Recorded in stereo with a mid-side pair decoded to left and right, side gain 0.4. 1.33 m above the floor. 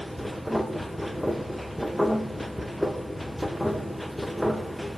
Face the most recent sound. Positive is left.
turn(degrees=5)